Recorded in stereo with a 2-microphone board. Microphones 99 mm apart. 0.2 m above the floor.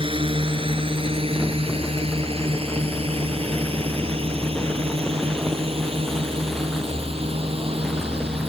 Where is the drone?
60° right (ahead or behind); by 8.5 s 70° right (ahead or behind).